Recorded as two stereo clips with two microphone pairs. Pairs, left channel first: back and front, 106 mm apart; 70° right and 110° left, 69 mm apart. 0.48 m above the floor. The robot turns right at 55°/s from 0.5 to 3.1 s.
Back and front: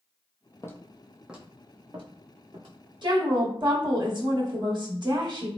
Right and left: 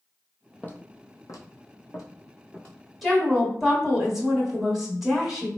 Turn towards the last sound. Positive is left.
turn(degrees=25)